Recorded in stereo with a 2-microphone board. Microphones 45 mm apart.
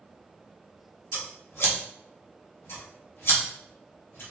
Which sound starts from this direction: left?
Scissors, at 1.1 s.